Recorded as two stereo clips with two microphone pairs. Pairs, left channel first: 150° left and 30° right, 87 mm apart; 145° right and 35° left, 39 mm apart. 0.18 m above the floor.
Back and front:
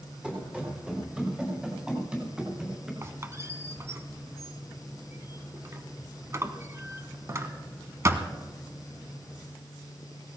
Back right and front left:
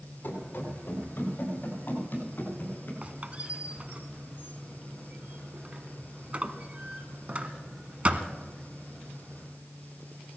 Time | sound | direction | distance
0.2 | running footsteps | 105° right | 5 m
3.0 | a squeak | 5° left | 1.2 m